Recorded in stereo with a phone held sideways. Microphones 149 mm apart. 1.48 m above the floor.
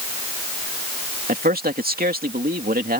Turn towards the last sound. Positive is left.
turn(degrees=-75)  # may be behind; listen again after turning